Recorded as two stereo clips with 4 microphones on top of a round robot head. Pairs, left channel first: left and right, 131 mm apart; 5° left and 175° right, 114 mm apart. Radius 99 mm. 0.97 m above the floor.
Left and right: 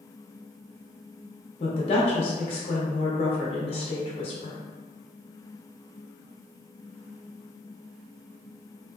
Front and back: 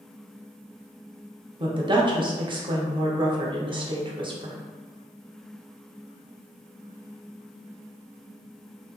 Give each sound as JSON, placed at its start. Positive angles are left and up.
{"t": 1.6, "sound": "a woman speaking", "azimuth_deg": 140, "distance_m": 0.7}